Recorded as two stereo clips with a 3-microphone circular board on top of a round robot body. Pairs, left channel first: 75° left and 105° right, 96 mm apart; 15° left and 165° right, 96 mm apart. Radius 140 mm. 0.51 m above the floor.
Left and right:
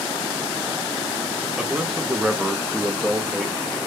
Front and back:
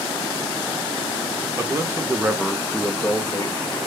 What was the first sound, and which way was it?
A man speaking, straight behind.